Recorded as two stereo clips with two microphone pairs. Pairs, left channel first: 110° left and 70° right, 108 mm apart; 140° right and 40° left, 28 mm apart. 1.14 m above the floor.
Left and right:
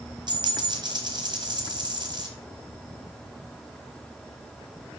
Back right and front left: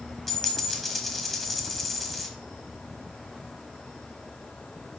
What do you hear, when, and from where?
0.3 s a dropped coin: 55° right, 1.3 m